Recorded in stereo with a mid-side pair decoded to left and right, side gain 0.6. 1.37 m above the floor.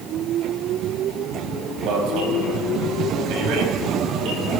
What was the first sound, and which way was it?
An alarm, 65° right.